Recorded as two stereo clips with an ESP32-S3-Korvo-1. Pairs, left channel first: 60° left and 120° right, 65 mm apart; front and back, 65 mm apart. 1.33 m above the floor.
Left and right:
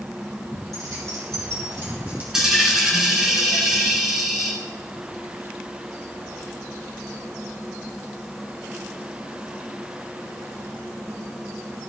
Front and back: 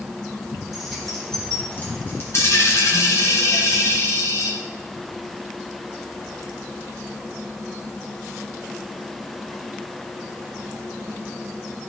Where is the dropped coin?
40° right, 2.5 m.